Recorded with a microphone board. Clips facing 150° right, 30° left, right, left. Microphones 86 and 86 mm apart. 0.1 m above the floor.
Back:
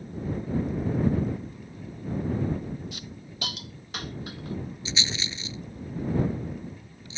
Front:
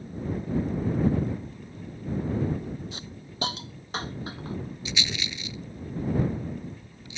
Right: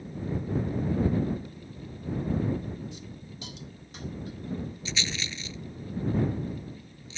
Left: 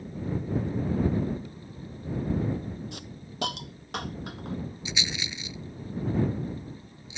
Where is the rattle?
160° left.